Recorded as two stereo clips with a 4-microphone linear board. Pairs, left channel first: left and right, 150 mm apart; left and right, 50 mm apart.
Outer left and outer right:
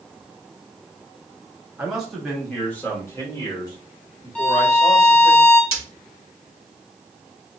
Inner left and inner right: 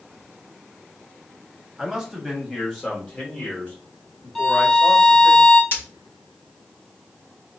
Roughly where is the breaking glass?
Left.